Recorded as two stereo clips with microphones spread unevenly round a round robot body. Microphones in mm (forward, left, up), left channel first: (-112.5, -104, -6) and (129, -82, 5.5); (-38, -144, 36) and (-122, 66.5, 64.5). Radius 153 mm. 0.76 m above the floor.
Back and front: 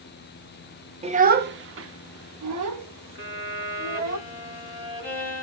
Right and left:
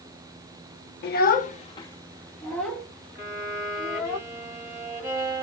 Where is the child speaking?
60° right, 0.6 m; by 4.2 s 35° left, 1.7 m.